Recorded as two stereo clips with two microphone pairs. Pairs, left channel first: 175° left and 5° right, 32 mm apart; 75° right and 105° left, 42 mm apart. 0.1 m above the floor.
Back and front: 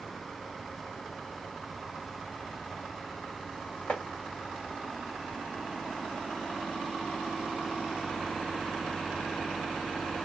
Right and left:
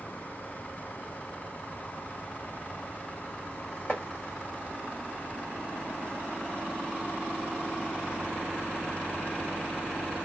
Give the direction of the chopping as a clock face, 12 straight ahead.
5 o'clock.